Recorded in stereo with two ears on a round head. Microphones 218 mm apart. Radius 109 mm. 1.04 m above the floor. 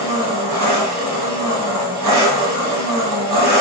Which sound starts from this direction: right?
An engine running, at 0.0 s.